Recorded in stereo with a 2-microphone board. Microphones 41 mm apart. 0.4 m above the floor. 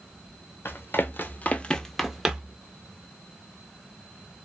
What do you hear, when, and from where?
0.7 s running footsteps: 65° left (ahead or behind), 0.8 m; by 2.6 s 30° right (ahead or behind), 0.7 m